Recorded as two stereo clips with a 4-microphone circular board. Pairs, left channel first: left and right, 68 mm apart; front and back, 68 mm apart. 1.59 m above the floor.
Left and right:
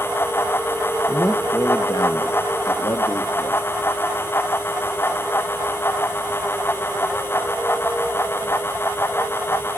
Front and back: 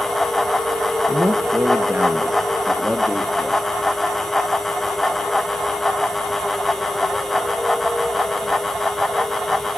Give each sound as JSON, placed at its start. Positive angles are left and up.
{"t": 1.1, "sound": "a man speaking", "azimuth_deg": 135, "distance_m": 1.4}